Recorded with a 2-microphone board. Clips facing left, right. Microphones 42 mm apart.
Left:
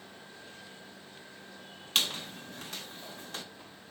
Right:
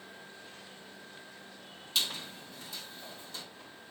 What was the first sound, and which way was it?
A squeak, 55° left (ahead or behind).